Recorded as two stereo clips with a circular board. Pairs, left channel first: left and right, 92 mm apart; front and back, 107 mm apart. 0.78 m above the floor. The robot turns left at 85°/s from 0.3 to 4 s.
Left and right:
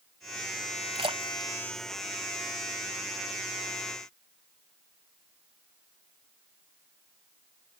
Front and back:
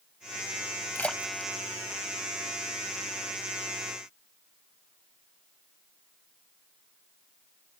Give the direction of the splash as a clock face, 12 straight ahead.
2 o'clock.